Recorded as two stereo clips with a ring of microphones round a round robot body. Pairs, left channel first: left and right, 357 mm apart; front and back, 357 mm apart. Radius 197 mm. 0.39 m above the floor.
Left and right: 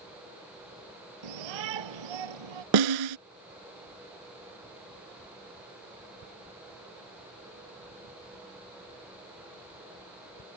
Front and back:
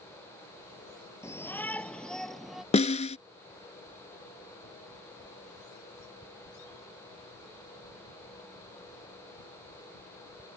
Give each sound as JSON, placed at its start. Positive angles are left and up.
{"t": 1.2, "sound": "a shout", "azimuth_deg": -85}
{"t": 2.7, "sound": "a snare drum", "azimuth_deg": -75}